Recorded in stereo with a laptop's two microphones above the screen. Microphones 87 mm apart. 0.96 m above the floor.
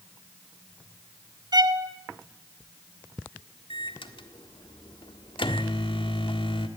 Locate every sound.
1.5 s a violin: 50° right (ahead or behind), 1.2 m
3.7 s a microwave: 80° left, 1.6 m